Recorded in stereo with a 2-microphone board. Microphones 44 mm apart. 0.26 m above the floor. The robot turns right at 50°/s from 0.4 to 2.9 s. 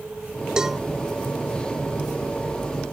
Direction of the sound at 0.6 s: 20° right (ahead or behind).